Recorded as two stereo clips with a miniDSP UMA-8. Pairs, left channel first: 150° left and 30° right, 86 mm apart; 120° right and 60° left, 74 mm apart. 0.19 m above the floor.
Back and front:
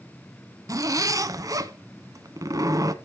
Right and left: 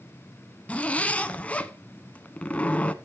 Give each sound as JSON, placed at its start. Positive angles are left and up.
{"t": 0.7, "sound": "a zipper", "azimuth_deg": -55, "distance_m": 0.7}